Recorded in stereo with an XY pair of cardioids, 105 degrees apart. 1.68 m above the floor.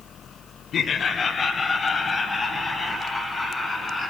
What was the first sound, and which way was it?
Laughter, 55° left.